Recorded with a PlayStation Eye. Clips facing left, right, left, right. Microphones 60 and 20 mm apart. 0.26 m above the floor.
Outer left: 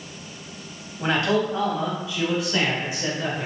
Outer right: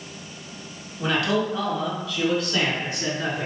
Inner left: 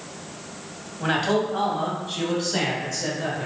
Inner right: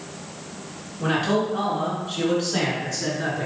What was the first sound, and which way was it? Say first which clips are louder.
A man speaking: outer left 1 dB, even; 35° left (ahead or behind).